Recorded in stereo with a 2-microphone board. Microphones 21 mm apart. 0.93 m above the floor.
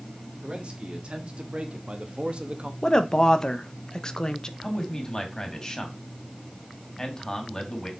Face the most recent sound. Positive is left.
turn(degrees=35)  # may be behind; listen again after turning